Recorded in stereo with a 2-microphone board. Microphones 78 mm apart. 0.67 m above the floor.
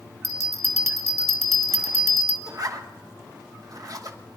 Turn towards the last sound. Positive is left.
turn(degrees=-50)  # may be behind; listen again after turning